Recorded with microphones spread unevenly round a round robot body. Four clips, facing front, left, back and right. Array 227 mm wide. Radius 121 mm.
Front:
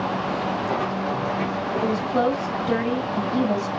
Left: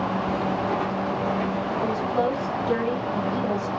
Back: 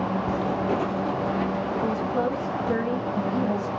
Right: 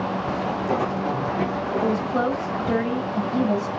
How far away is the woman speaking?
About 1.6 m.